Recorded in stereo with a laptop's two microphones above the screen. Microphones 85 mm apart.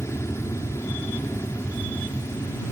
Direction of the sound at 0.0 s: 35° left (ahead or behind).